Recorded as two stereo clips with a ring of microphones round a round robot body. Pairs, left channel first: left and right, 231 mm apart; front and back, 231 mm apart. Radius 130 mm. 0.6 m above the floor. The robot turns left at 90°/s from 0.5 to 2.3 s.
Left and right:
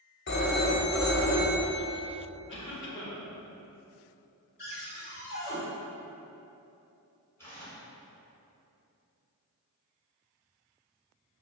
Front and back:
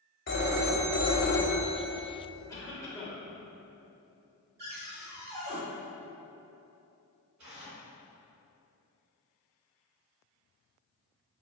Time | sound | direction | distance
0.3 | a phone ringing | 45° left | 0.7 m
2.5 | a cough | 75° left | 0.9 m
4.6 | a cupboard door | 130° left | 1.9 m
7.4 | tearing paper | 170° left | 2.0 m